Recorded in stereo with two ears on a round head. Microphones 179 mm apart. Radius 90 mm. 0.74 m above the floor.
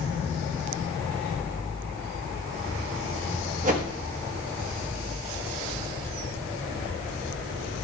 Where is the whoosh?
40° right (ahead or behind), 1.1 m.